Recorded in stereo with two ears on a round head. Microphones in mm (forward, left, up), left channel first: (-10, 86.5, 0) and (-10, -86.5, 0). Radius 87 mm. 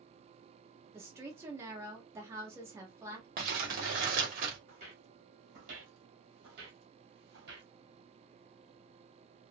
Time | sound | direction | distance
0.9 | a woman speaking | 15° right (ahead or behind) | 1.0 m
3.4 | crumpling | 45° right (ahead or behind) | 1.1 m
4.7 | footsteps | 30° right (ahead or behind) | 1.7 m